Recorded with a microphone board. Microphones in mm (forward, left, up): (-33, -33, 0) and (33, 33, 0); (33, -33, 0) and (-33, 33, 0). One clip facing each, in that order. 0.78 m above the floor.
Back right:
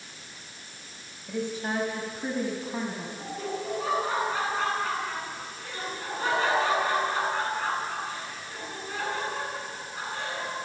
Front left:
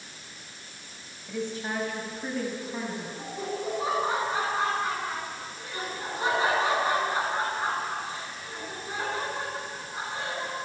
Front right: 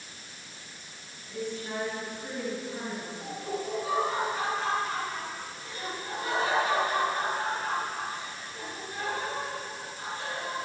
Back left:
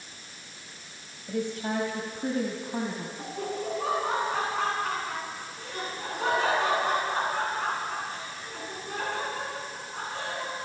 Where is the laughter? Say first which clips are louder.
Even, back left 2 dB; 115° left, 9.5 m.